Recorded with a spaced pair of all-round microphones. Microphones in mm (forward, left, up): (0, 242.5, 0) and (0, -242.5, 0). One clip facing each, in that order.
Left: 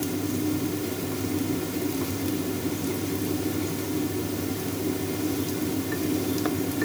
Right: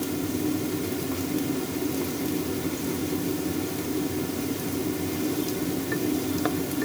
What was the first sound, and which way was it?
Only background noise.